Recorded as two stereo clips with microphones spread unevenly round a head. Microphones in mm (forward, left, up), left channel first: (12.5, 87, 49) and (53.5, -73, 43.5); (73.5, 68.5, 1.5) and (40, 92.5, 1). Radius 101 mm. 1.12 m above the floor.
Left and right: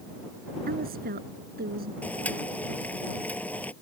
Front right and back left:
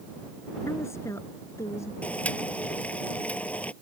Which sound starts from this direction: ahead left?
Boiling, at 2.0 s.